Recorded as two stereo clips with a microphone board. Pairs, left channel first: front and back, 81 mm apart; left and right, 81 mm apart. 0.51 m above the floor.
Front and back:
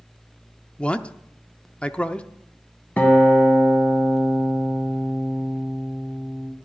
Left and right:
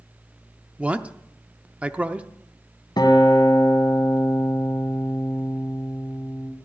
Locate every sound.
0.8 s a man speaking: 50° right, 0.6 m
3.0 s a guitar: 70° left, 2 m